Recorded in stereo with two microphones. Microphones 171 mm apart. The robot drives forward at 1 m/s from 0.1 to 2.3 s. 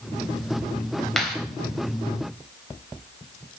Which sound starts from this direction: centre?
A clap, at 1.2 s.